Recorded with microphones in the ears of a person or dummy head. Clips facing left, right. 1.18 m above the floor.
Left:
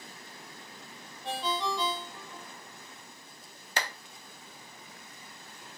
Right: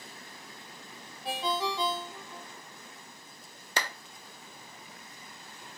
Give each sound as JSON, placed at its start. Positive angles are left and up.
{"t": 1.2, "sound": "a ringtone", "side_deg": -10, "distance_m": 0.7}
{"t": 3.8, "sound": "a clap", "side_deg": -80, "distance_m": 0.6}